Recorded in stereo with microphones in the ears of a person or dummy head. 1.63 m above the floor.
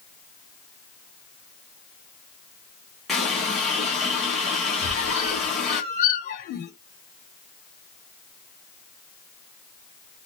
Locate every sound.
3.1 s a running tap: centre (ahead or behind), 1.2 m
4.8 s a squeak: 45° left (ahead or behind), 2.0 m